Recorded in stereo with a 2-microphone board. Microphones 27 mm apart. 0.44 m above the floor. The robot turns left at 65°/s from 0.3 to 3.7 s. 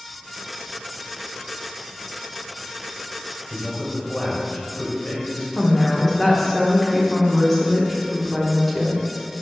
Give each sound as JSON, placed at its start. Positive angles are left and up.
{"t": 3.5, "sound": "a man speaking", "side_deg": 40, "distance_m": 2.5}
{"t": 5.5, "sound": "a woman speaking", "side_deg": 15, "distance_m": 1.2}